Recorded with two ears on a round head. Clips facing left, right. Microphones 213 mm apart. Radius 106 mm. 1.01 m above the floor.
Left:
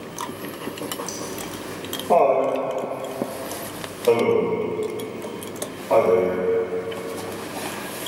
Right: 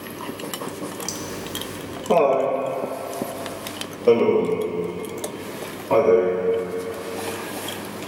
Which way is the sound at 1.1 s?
20° right (ahead or behind).